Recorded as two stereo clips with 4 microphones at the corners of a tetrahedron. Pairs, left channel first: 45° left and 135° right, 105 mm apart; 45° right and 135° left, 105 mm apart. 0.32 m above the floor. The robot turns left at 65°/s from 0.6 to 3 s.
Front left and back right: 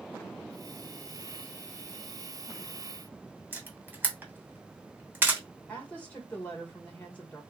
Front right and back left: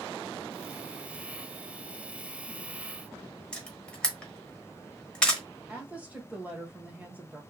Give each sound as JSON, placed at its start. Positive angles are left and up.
{"t": 3.5, "sound": "a camera shutter", "azimuth_deg": -110, "distance_m": 1.1}
{"t": 5.7, "sound": "a woman speaking", "azimuth_deg": 95, "distance_m": 1.5}